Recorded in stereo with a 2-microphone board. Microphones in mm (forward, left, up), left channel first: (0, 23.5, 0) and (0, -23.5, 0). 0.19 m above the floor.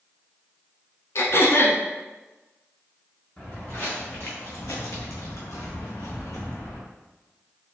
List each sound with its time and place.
1.1 s throat clearing: 60° left (ahead or behind), 0.6 m
3.4 s footsteps: 30° left (ahead or behind), 1.5 m; by 6.8 s 45° left (ahead or behind), 1.6 m